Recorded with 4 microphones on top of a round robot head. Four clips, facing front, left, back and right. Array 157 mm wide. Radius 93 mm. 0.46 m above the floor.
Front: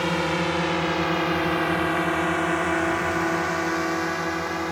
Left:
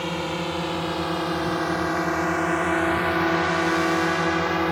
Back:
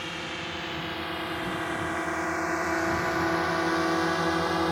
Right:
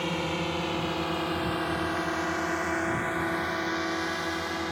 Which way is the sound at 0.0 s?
5° left.